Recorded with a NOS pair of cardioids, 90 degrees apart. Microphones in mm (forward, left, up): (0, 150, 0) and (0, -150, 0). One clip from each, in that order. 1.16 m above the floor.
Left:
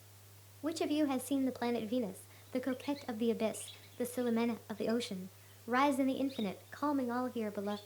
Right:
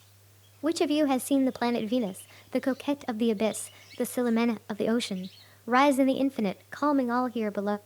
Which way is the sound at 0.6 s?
50° right.